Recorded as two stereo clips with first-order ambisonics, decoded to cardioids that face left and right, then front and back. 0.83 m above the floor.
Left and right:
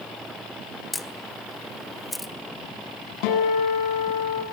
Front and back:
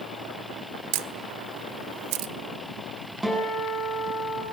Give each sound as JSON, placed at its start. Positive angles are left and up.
{"t": 0.9, "sound": "a camera shutter", "azimuth_deg": 170, "distance_m": 1.3}
{"t": 3.2, "sound": "a guitar", "azimuth_deg": 100, "distance_m": 8.5}